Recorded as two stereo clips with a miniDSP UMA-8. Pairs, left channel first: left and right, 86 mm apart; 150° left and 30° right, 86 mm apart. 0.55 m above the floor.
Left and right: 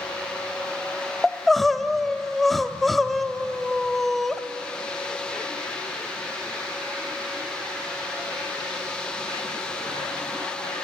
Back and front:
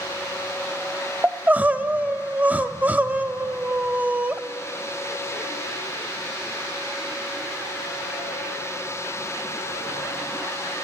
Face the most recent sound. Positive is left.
turn(degrees=5)